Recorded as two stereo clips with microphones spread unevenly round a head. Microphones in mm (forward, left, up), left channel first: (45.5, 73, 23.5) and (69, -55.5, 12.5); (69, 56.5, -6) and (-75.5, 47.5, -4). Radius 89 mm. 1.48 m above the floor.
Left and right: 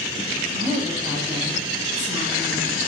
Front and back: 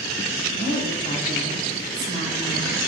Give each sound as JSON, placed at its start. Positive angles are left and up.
{"t": 0.5, "sound": "a woman speaking", "azimuth_deg": -145, "distance_m": 3.5}